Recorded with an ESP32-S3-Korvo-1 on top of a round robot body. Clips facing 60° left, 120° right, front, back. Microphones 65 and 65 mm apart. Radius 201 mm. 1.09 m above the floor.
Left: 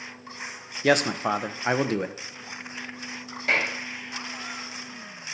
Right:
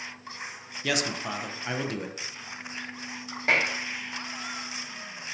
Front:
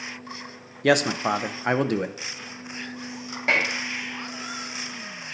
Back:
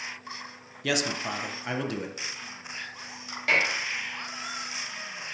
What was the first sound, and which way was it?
A man speaking, 25° left.